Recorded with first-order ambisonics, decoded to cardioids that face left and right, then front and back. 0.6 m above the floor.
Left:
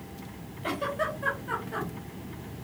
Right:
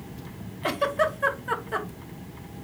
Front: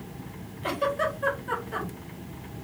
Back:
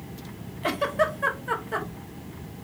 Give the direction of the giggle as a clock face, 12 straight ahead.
4 o'clock.